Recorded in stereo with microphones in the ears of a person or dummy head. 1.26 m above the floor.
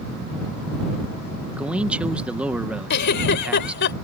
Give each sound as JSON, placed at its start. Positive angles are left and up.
{"t": 1.5, "sound": "a man speaking", "side_deg": -10}
{"t": 2.9, "sound": "a giggle", "side_deg": 60}